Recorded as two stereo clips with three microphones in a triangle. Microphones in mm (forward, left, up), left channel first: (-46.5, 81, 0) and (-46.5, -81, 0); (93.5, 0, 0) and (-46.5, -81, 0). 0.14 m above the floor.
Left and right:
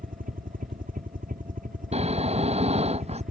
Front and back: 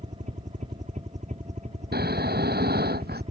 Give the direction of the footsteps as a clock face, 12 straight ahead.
No footsteps in this recording.